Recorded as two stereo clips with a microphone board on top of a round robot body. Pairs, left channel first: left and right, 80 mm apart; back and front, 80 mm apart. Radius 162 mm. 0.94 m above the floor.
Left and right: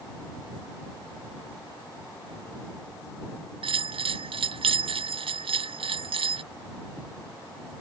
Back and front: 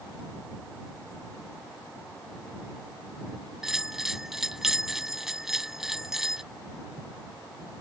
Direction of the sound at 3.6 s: 85° right.